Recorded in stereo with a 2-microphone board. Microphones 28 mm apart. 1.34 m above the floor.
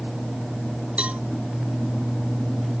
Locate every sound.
1.0 s a cowbell: 55° right (ahead or behind)